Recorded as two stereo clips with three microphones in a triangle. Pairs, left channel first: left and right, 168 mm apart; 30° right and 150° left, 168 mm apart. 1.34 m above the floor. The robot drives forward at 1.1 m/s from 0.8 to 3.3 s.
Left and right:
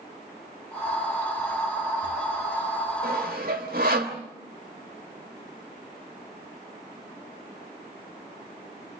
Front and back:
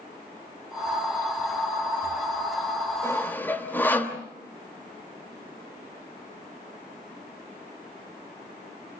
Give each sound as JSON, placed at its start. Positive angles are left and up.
{"t": 3.0, "sound": "sawing", "azimuth_deg": -105, "distance_m": 3.0}